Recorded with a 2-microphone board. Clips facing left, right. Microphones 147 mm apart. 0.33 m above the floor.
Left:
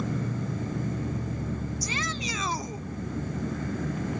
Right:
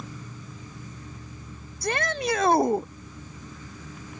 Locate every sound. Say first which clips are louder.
0.0 s an insect: left 11 dB; 60° left (ahead or behind)
1.8 s a shout: right 6 dB; 55° right (ahead or behind)